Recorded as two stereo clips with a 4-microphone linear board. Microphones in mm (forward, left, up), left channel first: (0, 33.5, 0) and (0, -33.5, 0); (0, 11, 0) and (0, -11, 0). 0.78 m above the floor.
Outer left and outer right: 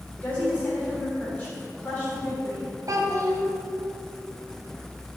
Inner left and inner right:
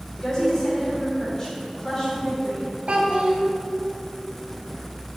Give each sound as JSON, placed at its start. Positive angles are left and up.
{"t": 0.2, "sound": "a woman speaking", "side_deg": 20, "distance_m": 3.0}
{"t": 2.9, "sound": "a child speaking", "side_deg": -65, "distance_m": 1.4}